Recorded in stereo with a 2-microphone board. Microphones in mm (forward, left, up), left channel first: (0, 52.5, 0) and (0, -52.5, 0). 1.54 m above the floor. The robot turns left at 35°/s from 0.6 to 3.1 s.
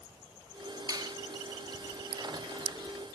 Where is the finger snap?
40° right (ahead or behind); by 1.1 s 50° right (ahead or behind).